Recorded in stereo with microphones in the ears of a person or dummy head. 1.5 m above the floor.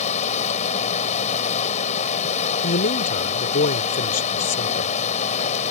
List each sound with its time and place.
0.0 s running water: 40° left (ahead or behind)
2.6 s a man speaking: 50° left (ahead or behind)